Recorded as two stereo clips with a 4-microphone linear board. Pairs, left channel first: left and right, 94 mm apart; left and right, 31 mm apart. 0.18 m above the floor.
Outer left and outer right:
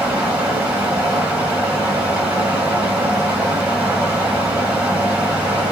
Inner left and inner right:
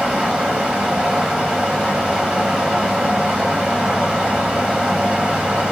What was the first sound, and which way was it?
Running water, 15° right (ahead or behind).